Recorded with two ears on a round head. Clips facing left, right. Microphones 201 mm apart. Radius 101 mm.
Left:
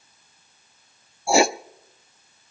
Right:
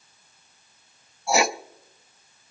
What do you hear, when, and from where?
1.3 s writing: 25° left (ahead or behind), 0.5 m